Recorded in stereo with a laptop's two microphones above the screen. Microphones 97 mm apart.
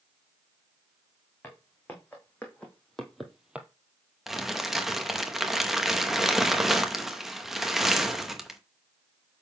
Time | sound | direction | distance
1.4 | footsteps | 20° left (ahead or behind) | 3 m
4.3 | crumpling | centre (ahead or behind) | 0.7 m